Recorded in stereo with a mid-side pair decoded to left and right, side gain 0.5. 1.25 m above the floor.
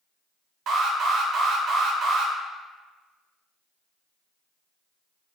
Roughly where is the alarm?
Ahead right.